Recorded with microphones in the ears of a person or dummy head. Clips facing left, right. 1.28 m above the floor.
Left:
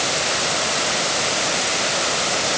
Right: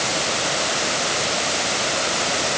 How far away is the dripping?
No dripping in this recording.